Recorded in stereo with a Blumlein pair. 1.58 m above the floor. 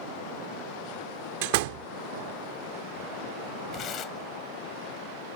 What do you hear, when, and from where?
1.4 s a door slam: 50° right
3.7 s tearing paper: 30° left